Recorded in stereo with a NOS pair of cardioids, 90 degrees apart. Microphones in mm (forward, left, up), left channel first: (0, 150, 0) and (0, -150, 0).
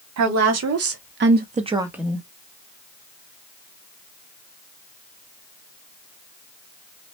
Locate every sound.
0.2 s a woman speaking: 65° right, 1.2 m; by 2.2 s 10° left, 0.8 m